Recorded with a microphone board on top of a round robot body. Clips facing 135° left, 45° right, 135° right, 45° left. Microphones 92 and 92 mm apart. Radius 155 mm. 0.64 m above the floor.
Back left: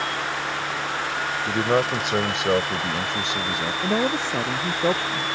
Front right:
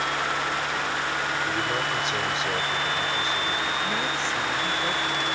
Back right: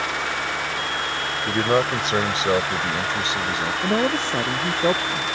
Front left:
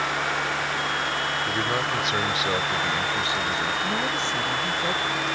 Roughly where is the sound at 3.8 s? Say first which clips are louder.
Back left 5 dB, back right 5 dB; behind.